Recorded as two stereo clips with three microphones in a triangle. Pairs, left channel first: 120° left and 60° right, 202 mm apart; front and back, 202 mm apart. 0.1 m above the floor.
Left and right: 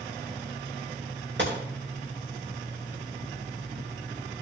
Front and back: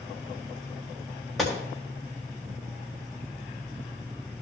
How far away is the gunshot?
About 3.5 m.